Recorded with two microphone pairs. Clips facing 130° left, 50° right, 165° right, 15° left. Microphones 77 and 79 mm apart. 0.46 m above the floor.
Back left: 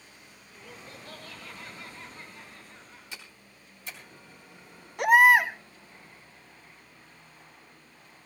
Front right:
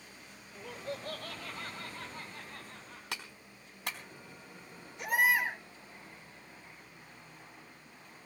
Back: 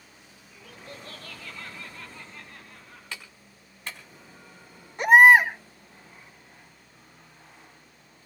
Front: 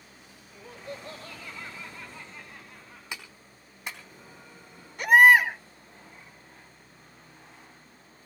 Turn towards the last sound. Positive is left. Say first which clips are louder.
# back left 11 dB, back 2 dB
turn(degrees=135)